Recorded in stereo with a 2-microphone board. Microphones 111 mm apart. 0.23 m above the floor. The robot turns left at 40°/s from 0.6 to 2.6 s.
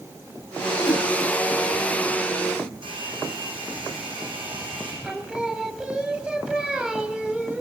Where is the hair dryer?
55° right (ahead or behind), 7.5 m.